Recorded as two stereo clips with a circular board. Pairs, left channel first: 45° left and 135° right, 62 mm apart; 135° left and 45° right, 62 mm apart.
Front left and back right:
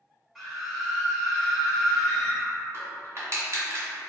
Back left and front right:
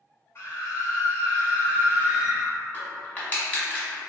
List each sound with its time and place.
0.3 s a scream: 140° left, 1.9 m
2.7 s crushing: 165° right, 1.4 m